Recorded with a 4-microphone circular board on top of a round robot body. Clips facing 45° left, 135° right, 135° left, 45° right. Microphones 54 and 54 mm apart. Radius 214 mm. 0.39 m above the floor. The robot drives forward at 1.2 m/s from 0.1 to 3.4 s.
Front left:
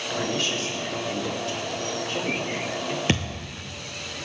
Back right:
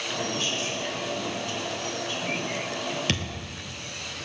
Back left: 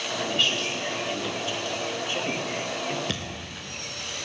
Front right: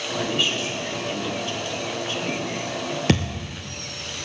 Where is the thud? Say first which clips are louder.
Front left 4 dB, front right 10 dB; 25° right, 0.9 m; by 3.6 s 40° right, 0.6 m.